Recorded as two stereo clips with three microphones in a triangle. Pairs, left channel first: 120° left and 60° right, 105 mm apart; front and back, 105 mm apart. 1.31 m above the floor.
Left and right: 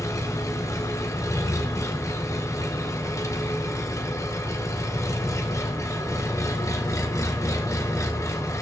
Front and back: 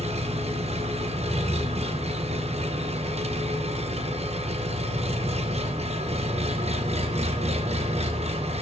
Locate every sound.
0.0 s an engine running: straight behind, 0.9 m